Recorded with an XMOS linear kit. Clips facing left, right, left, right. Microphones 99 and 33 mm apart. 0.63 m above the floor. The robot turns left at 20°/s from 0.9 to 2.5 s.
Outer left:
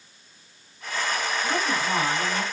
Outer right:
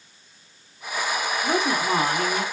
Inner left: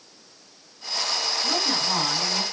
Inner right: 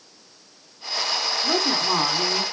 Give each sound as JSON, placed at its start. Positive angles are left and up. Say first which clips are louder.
{"t": 1.4, "sound": "a woman speaking", "louder": "outer right 5 dB, inner right 4 dB", "side_deg": -60, "distance_m": 1.6}